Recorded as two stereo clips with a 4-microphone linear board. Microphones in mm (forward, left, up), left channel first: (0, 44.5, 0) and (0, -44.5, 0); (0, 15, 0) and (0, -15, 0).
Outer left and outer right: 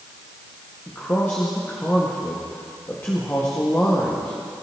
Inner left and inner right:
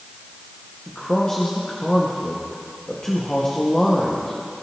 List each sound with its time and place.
0.9 s a man speaking: 30° left (ahead or behind), 1.4 m